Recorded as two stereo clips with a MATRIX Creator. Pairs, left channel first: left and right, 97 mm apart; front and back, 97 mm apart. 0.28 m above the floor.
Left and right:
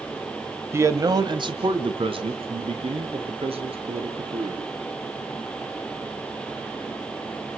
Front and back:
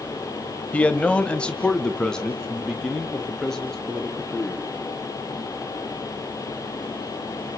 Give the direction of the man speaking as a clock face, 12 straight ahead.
2 o'clock.